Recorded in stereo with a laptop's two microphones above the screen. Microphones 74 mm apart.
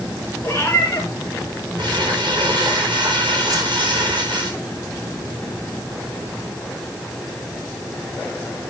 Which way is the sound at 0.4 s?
30° left (ahead or behind).